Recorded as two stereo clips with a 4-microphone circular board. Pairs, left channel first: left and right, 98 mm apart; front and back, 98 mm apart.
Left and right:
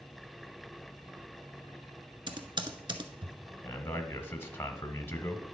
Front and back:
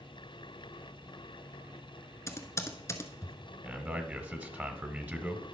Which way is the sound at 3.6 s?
125° left.